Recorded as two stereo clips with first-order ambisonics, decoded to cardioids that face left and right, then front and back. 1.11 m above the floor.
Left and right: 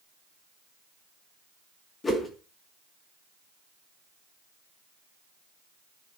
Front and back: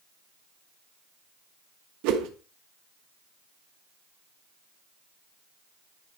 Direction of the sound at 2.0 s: 165° left.